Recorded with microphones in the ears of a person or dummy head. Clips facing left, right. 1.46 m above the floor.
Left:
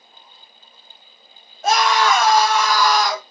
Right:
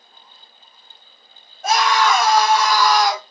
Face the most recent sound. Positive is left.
turn(degrees=70)  # may be behind; listen again after turning